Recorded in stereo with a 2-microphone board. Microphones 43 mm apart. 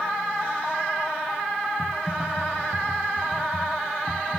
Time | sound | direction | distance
1.8 | typing on a keyboard | 10° right (ahead or behind) | 1.5 m